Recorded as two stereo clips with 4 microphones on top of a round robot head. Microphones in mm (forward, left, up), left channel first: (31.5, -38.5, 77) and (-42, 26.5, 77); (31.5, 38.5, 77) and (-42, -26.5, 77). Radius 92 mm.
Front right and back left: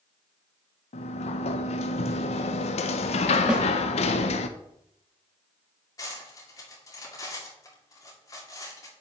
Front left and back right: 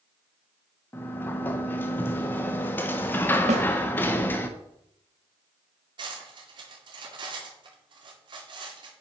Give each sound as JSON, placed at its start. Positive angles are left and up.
{"t": 0.9, "sound": "a sliding door", "azimuth_deg": -30, "distance_m": 0.7}
{"t": 3.5, "sound": "a snare drum", "azimuth_deg": -140, "distance_m": 1.0}
{"t": 6.0, "sound": "cutlery clinking", "azimuth_deg": -95, "distance_m": 2.0}